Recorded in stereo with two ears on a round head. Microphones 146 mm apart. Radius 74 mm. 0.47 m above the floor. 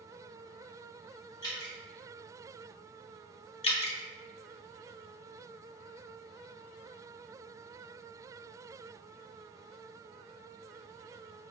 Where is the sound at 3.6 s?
35° left (ahead or behind), 0.6 m.